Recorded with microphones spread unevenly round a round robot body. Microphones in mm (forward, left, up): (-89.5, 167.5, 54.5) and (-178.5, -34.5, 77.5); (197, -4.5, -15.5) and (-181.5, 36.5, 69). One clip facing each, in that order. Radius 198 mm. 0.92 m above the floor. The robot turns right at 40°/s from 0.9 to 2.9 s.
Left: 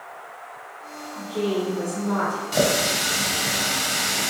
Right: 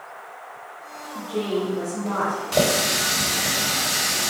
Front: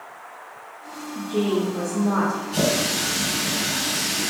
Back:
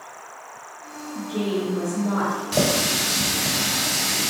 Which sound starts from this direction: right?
A woman speaking, at 1.1 s.